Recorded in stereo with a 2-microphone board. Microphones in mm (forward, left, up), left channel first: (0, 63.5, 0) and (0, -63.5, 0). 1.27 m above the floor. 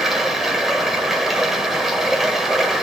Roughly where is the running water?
Centre.